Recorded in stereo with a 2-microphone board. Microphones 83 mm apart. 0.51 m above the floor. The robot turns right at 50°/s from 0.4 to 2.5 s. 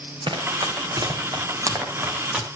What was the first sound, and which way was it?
Running footsteps, 75° right (ahead or behind).